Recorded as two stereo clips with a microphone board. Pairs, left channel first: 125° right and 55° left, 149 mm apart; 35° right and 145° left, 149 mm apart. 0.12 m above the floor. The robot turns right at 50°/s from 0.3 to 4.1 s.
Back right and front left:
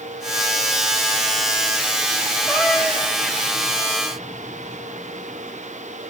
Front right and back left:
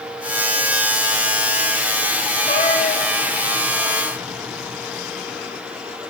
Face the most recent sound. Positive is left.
turn(degrees=35)